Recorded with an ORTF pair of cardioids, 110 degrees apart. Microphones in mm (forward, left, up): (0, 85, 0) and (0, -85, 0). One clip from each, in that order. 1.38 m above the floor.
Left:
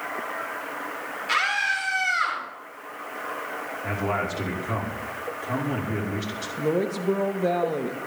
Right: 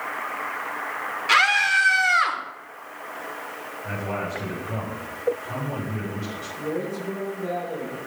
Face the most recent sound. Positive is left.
turn(degrees=50)